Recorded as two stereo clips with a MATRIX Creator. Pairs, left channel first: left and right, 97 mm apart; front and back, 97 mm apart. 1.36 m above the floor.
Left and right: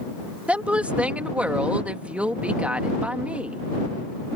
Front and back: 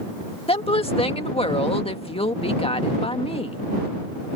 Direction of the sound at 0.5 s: 15° right.